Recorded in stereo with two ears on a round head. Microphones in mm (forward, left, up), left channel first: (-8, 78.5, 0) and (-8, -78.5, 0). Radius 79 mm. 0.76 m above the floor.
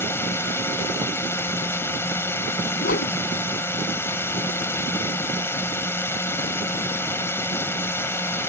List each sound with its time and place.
0.0 s a drone: 15° left (ahead or behind)
2.8 s a whoosh: 55° left (ahead or behind)